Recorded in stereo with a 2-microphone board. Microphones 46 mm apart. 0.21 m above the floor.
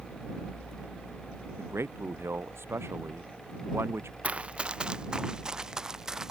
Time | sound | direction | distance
1.6 | a man speaking | 70° right (ahead or behind) | ?
4.2 | running footsteps | 30° right (ahead or behind) | ?